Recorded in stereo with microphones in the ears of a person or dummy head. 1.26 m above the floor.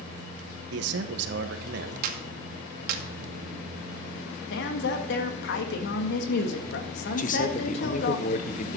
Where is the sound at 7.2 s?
35° left (ahead or behind), 0.8 m.